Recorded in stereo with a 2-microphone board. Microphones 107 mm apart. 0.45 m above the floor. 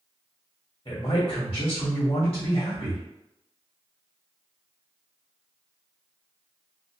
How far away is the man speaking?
About 1.4 m.